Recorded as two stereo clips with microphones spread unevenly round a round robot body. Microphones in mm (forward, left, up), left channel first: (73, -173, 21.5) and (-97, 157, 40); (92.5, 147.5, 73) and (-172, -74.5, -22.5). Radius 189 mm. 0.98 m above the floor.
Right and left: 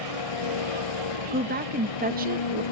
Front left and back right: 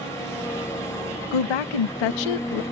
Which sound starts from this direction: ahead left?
A woman speaking, at 1.3 s.